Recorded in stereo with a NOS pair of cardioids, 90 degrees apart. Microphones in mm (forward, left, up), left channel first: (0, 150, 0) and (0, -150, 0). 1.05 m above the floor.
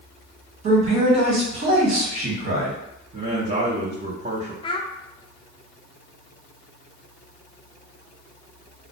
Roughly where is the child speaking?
Ahead.